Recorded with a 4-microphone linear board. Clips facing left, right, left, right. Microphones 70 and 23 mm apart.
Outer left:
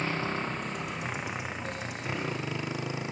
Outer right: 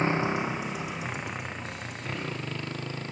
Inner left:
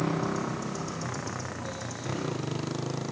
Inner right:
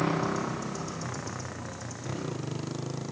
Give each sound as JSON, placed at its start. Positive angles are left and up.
{"t": 0.0, "sound": "a motorcycle", "side_deg": -25}